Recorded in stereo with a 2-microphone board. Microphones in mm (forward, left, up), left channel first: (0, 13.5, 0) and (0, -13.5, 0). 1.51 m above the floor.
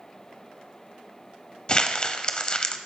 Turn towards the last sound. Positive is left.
turn(degrees=30)  # may be behind; listen again after turning